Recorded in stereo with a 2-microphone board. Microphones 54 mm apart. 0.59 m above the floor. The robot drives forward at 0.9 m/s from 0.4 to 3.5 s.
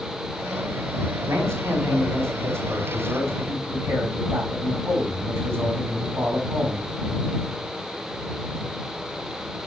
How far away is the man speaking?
About 4.5 m.